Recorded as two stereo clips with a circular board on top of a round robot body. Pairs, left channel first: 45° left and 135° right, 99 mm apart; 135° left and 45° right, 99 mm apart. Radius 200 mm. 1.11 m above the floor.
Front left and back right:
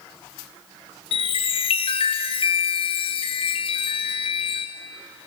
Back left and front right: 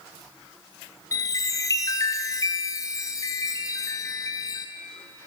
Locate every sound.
1.1 s a chime: 75° left, 1.0 m